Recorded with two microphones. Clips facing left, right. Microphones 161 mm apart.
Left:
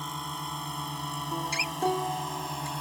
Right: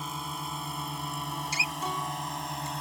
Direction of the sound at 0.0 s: Centre (ahead or behind).